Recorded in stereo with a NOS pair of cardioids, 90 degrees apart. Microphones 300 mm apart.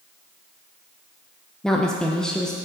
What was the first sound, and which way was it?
A woman speaking, straight ahead.